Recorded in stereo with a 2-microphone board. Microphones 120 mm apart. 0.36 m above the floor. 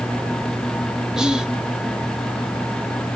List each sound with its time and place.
1.2 s whispering: 5° right (ahead or behind), 1.0 m